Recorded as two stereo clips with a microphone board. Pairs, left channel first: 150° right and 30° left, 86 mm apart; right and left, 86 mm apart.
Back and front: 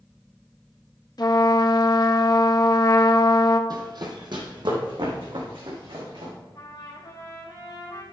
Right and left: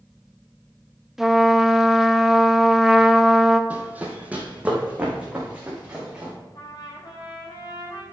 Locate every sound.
1.2 s a trumpet: 175° left, 0.8 m
3.7 s running footsteps: 25° left, 1.9 m; by 6.3 s 15° left, 5.5 m
6.5 s a trumpet: 115° right, 3 m